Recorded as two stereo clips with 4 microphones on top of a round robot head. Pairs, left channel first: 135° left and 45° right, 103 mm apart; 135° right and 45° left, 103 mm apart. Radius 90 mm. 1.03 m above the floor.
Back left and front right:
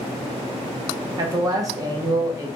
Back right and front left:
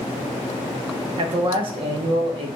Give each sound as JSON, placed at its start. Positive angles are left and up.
{"t": 1.2, "sound": "a man speaking", "azimuth_deg": 10, "distance_m": 0.6}